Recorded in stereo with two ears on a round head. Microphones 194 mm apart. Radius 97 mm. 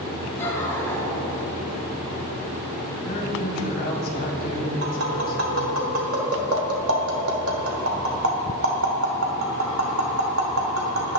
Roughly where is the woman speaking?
Left.